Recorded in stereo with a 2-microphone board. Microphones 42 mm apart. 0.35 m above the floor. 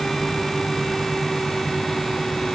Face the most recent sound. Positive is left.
No sound to turn to.